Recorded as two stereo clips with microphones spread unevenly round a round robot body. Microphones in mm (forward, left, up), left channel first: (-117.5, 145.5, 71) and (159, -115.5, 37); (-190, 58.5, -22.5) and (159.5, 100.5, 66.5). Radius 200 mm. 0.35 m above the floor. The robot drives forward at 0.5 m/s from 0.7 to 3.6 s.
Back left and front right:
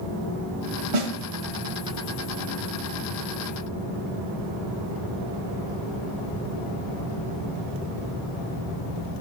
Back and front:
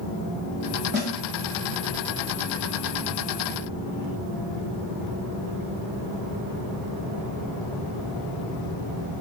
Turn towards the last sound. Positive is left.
turn(degrees=-115)